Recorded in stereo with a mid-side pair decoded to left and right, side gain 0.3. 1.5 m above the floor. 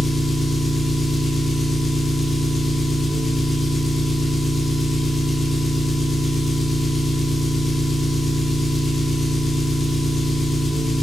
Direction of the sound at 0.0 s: 50° left.